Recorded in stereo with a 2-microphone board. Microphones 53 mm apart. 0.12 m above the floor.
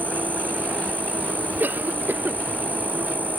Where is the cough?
35° right (ahead or behind).